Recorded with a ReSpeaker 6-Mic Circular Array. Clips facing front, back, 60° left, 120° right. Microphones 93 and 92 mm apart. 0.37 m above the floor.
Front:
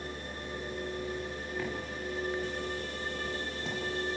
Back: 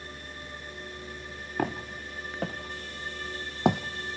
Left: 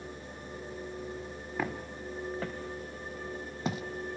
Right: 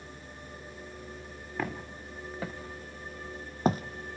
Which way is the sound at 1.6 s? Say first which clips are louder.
Back 8 dB, even; 145° left.